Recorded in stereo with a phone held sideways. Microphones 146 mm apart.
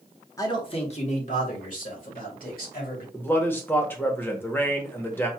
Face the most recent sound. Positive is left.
turn(degrees=15)  # may be behind; listen again after turning